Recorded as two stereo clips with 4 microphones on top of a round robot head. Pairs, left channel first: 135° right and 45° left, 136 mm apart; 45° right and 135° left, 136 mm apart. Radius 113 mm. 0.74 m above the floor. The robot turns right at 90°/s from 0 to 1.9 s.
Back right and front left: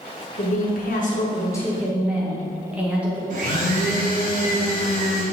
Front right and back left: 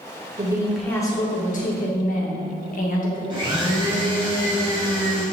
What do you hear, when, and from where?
0.4 s a woman speaking: 170° right, 2 m; by 3.2 s 35° right, 2 m
3.3 s a blender: 75° left, 2.5 m